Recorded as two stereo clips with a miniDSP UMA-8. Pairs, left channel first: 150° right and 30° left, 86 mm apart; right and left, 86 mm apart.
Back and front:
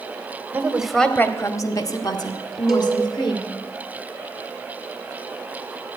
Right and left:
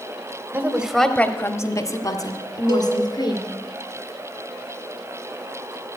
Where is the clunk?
No clunk in this recording.